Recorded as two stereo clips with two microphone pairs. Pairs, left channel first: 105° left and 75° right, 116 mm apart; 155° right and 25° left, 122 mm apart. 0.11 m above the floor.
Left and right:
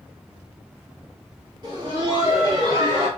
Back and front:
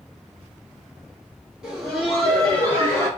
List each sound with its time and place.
1.6 s laughter: 55° right, 1.9 m; by 3.1 s 100° right, 1.9 m